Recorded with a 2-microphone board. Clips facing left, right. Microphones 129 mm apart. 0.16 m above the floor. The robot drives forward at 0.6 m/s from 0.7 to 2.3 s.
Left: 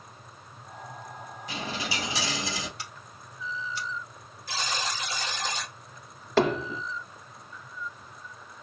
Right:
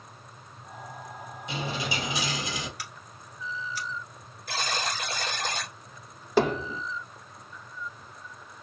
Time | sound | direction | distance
1.5 | a dropped coin | 25° right (ahead or behind) | 1.7 m
2.8 | scissors | 25° left (ahead or behind) | 1.2 m
4.5 | a buzzer | 60° right (ahead or behind) | 0.8 m
6.4 | hammering | 10° right (ahead or behind) | 1.9 m